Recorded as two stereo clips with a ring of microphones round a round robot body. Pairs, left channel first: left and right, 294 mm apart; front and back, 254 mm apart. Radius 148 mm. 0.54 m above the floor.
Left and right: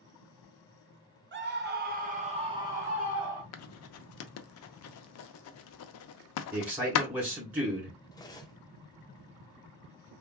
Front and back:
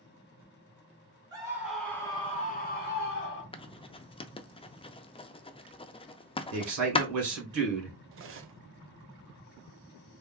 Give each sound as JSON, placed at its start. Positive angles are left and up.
{"t": 1.3, "sound": "a scream", "azimuth_deg": -115, "distance_m": 1.0}
{"t": 3.5, "sound": "writing", "azimuth_deg": 65, "distance_m": 0.5}
{"t": 6.5, "sound": "a man speaking", "azimuth_deg": -175, "distance_m": 2.0}
{"t": 8.1, "sound": "cutlery clinking", "azimuth_deg": 165, "distance_m": 0.7}